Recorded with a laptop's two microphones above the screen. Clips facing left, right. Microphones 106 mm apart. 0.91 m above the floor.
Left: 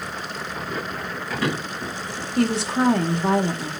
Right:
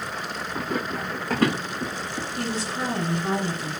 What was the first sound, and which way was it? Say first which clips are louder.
Running footsteps: right 3 dB; 40° right (ahead or behind).